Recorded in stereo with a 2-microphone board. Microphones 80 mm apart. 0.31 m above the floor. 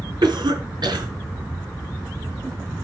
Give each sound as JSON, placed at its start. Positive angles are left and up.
{"t": 0.2, "sound": "a cough", "side_deg": -65, "distance_m": 3.5}